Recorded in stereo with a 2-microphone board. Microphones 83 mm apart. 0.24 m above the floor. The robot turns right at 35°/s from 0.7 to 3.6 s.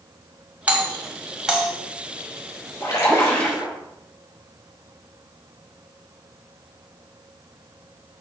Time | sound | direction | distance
0.7 | a doorbell | 20° right (ahead or behind) | 1.6 m
2.8 | a splash | 40° left (ahead or behind) | 3.5 m